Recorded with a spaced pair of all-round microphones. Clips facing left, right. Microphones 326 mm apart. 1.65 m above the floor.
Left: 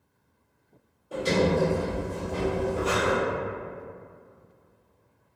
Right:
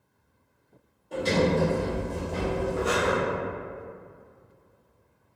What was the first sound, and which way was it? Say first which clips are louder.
A sliding door: even; 5° left (ahead or behind).